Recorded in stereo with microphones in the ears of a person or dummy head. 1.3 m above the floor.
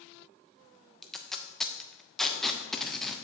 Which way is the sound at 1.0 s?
5° left (ahead or behind).